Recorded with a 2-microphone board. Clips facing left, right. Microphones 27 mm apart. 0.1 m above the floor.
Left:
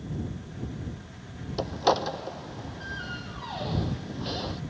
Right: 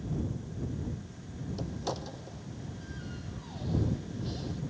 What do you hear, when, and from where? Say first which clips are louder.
1.6 s a door slam: left 13 dB; 55° left (ahead or behind)